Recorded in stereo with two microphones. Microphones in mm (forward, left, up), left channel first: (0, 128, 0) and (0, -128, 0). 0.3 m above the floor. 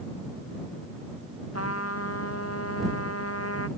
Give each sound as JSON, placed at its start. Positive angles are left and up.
{"t": 1.5, "sound": "a trumpet", "side_deg": 65}